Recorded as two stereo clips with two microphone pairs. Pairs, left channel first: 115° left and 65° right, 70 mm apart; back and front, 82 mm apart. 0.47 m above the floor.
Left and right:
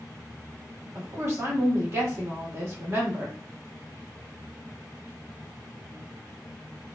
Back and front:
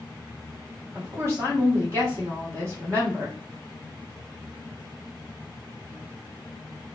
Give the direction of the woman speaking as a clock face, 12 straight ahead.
1 o'clock.